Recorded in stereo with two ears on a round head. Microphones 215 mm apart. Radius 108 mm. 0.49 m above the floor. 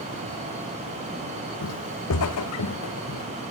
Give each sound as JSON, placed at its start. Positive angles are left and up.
{"t": 1.6, "sound": "footsteps", "side_deg": 70, "distance_m": 1.2}